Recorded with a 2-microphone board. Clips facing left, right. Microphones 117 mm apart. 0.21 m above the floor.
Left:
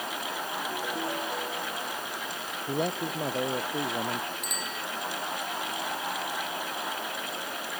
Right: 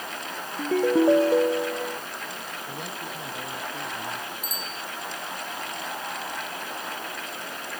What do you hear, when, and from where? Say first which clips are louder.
0.6 s a ringtone: right 16 dB; 80° right
2.7 s a man speaking: left 10 dB; 55° left (ahead or behind)
4.4 s a bicycle bell: even; 70° left (ahead or behind)